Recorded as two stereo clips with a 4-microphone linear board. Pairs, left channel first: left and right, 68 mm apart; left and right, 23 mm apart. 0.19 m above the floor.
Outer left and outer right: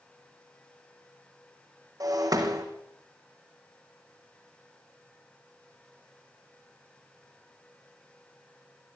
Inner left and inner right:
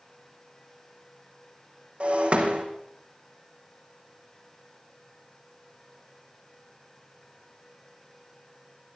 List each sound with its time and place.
2.0 s breaking glass: 65° right (ahead or behind), 4.5 m